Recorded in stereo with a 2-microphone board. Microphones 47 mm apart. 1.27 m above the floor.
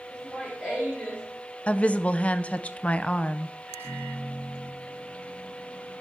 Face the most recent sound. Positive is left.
turn(degrees=-50)  # may be behind; listen again after turning